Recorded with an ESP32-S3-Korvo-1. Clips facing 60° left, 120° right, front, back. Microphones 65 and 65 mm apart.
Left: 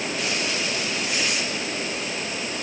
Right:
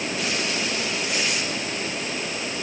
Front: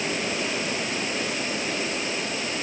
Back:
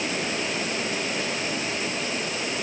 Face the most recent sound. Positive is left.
No sound to turn to.